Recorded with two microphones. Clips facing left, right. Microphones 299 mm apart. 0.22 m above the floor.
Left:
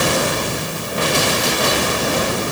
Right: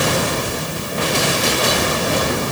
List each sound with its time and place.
Only background noise.